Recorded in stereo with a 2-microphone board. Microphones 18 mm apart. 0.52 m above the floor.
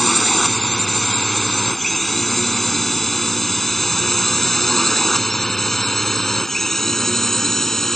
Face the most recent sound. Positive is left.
turn(degrees=25)  # may be behind; listen again after turning